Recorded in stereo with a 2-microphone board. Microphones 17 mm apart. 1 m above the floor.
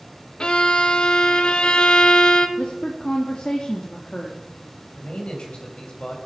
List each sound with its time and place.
0.4 s a violin: 55° left (ahead or behind), 1.3 m
2.6 s a woman speaking: 75° left (ahead or behind), 2.5 m
4.9 s a man speaking: 75° left (ahead or behind), 5.5 m